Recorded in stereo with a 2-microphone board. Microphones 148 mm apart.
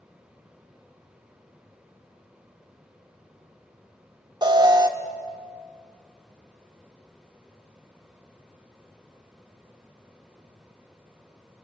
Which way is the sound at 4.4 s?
30° right (ahead or behind).